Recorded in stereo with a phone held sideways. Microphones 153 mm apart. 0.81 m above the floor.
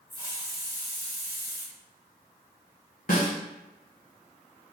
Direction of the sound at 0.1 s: 25° right (ahead or behind).